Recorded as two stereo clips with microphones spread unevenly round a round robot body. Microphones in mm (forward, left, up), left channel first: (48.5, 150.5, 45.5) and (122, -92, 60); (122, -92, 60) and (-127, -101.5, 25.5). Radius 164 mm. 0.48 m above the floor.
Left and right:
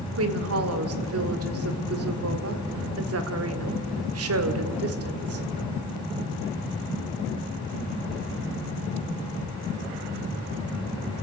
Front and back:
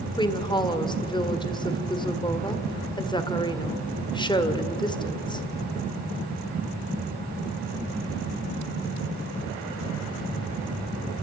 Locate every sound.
0.2 s a woman speaking: 75° right, 1.8 m